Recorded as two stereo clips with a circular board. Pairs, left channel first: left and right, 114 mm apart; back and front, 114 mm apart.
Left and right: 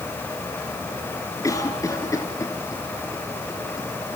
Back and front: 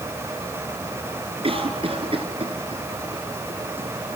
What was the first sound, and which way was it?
A cough, 30° left.